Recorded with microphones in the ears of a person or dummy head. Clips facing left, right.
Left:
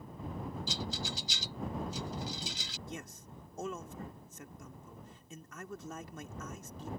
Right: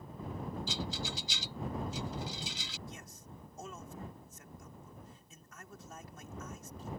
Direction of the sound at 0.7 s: 35° left (ahead or behind).